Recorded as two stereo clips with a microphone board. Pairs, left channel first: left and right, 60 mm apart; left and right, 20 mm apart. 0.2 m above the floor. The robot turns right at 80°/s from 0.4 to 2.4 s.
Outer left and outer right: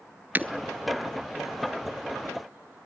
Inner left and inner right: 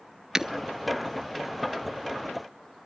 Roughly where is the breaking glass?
Right.